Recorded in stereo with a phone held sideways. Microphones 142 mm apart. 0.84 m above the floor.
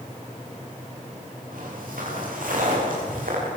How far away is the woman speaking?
No woman speaking in this recording.